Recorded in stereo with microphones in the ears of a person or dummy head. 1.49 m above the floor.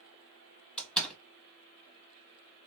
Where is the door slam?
5° left (ahead or behind), 0.9 m.